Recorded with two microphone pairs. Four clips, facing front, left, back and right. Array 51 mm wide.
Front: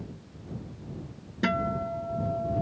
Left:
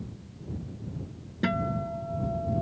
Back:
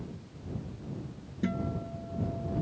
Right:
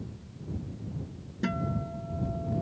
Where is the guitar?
15° left.